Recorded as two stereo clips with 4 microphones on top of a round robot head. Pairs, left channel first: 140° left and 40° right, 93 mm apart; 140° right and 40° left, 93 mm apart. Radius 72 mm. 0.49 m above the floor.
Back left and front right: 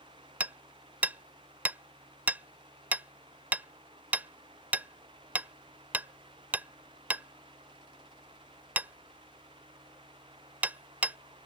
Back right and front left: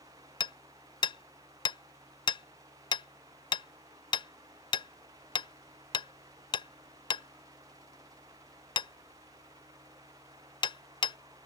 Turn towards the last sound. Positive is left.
turn(degrees=-110)